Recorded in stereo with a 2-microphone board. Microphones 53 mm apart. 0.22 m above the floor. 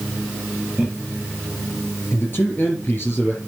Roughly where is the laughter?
Centre.